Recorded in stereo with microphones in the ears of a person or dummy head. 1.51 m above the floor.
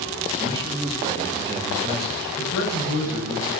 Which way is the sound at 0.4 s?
25° right (ahead or behind).